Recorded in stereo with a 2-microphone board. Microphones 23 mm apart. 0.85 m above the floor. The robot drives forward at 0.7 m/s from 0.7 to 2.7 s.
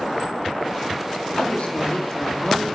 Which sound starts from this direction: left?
A woman speaking, at 1.4 s.